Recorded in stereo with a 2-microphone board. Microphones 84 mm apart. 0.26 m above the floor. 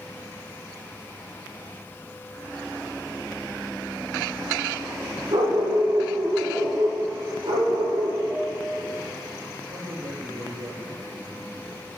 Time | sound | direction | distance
5.3 | a dog barking | 85° right | 5.5 m
8.3 | a piano | 10° right (ahead or behind) | 1.3 m
9.7 | a man speaking | 60° right (ahead or behind) | 6.5 m